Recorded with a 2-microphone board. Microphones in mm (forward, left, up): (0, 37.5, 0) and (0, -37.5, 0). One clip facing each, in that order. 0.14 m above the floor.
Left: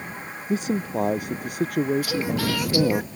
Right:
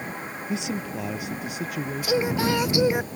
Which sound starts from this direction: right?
Singing, at 2.0 s.